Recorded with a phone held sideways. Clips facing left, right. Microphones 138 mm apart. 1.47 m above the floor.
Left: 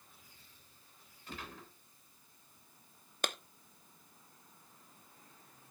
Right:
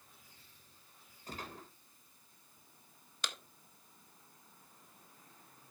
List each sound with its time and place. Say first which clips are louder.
1.3 s a gunshot: right 1 dB; 40° right (ahead or behind), 3.5 m
3.2 s a clap: left 7 dB; 55° left (ahead or behind), 0.9 m